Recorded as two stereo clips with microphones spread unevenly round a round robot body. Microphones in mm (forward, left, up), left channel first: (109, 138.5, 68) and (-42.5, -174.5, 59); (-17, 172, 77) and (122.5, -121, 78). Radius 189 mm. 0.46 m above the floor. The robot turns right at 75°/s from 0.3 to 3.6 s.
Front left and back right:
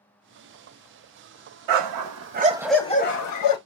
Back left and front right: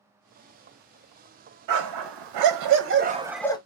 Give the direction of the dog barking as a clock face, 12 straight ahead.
3 o'clock.